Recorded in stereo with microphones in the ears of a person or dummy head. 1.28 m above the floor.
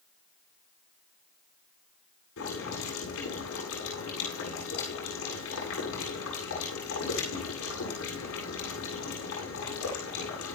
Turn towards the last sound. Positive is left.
turn(degrees=85)